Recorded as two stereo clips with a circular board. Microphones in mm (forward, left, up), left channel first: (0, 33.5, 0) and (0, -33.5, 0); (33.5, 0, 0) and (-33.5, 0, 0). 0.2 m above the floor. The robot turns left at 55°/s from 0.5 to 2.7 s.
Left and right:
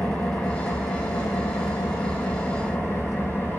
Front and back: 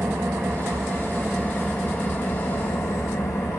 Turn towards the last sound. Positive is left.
turn(degrees=35)